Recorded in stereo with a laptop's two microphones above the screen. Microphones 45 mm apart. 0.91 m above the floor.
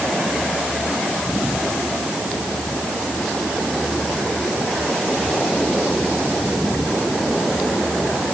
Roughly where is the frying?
No frying in this recording.